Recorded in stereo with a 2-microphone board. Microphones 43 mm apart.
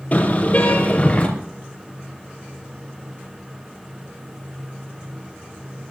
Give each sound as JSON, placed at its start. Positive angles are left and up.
{"t": 0.1, "sound": "a car horn", "side_deg": 40, "distance_m": 5.0}